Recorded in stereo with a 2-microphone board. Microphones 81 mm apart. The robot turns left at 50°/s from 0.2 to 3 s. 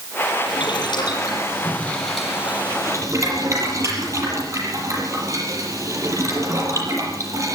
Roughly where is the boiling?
Left.